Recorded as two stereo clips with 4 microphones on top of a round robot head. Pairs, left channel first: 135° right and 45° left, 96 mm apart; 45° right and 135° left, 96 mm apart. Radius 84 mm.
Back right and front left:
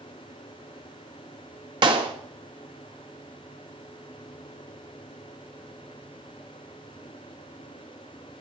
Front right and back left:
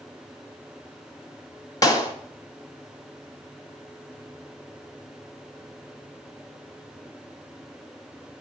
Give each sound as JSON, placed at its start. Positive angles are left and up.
{"t": 1.8, "sound": "a clap", "azimuth_deg": 5, "distance_m": 2.0}